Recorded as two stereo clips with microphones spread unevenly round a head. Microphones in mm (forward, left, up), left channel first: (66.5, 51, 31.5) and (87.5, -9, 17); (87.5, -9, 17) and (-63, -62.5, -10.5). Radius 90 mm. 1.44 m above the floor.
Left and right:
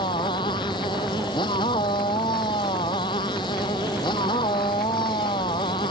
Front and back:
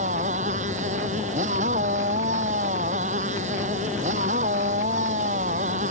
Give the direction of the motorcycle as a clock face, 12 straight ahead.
7 o'clock.